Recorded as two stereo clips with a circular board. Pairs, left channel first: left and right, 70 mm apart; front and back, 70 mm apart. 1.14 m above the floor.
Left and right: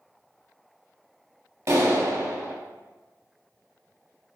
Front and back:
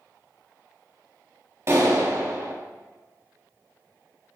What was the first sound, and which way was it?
A clap, 135° right.